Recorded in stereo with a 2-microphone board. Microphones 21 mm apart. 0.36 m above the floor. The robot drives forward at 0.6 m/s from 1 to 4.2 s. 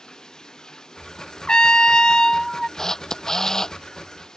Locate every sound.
0.0 s running water: 35° left (ahead or behind)
1.5 s a trumpet: 40° left (ahead or behind); by 2.7 s 30° left (ahead or behind)
2.8 s a camera shutter: 20° left (ahead or behind)